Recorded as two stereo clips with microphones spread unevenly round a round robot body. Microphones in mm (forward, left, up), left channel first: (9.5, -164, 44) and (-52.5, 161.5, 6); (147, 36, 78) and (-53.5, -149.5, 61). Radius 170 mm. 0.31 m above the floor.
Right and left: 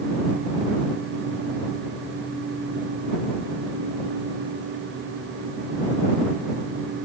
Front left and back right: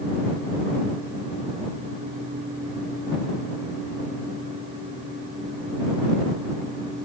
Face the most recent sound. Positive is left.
No sound to turn to.